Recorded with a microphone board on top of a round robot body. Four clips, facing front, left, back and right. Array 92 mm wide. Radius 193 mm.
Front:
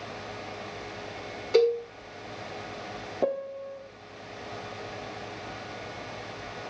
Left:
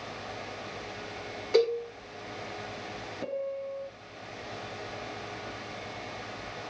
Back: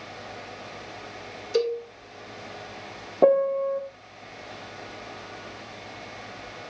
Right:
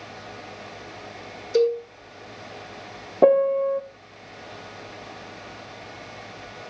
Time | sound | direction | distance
1.5 | a cowbell | 50° left | 6.5 m
3.2 | a piano | 115° right | 0.5 m